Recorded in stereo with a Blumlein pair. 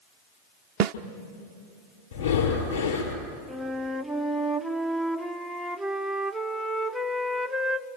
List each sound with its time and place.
0.8 s a snare drum: 35° right, 0.8 m
2.1 s breathing: 70° left, 5 m
3.5 s a flute: straight ahead, 0.8 m